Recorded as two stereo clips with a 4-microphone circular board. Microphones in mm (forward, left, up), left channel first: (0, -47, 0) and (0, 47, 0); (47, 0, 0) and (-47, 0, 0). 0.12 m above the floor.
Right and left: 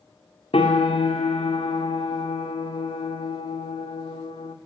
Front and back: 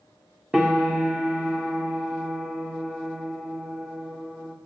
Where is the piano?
100° right, 2 m.